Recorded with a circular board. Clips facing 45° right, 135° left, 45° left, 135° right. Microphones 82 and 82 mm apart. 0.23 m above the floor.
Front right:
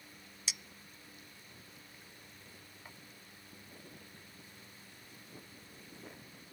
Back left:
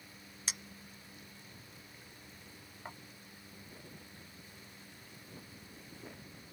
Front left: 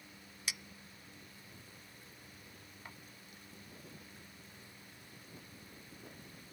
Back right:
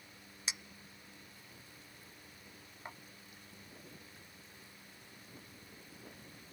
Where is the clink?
165° left.